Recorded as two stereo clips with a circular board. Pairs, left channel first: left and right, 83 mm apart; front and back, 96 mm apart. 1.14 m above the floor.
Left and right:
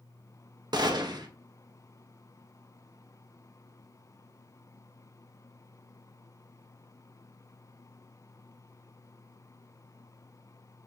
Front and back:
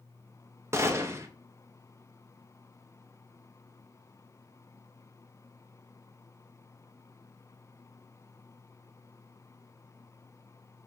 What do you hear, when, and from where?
0.7 s a gunshot: 120° right, 0.6 m